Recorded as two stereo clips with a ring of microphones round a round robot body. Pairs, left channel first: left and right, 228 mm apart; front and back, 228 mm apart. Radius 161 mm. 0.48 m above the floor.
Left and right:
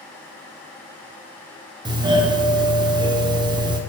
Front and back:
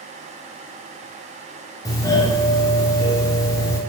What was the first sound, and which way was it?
A doorbell, 55° right.